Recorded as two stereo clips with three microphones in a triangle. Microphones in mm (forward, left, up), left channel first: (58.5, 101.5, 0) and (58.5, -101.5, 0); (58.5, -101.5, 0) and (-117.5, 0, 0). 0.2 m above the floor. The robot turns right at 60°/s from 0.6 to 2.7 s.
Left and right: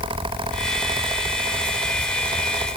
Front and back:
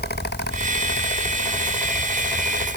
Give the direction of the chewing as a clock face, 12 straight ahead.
No chewing in this recording.